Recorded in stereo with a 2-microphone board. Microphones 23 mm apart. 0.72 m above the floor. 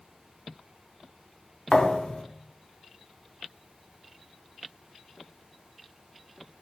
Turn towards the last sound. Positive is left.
turn(degrees=45)  # may be behind; listen again after turning